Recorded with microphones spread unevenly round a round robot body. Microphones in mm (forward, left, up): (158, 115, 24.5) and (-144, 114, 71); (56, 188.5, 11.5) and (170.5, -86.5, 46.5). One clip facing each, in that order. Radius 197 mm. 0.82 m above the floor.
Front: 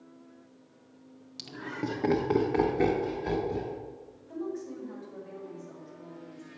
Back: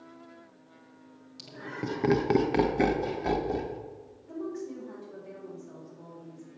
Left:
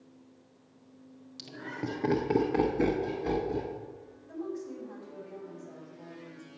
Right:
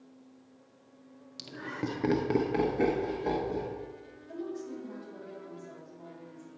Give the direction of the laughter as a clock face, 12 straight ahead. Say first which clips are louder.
Front 2 dB, right 1 dB; 12 o'clock.